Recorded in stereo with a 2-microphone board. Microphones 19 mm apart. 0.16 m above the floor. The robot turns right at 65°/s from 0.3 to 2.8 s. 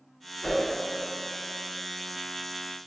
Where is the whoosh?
40° left (ahead or behind), 1.2 m.